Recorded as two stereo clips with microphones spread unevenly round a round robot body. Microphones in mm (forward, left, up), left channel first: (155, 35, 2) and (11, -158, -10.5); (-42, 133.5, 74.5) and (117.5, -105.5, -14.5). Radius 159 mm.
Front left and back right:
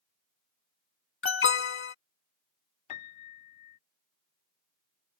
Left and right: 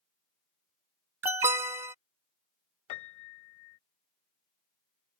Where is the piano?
90° left.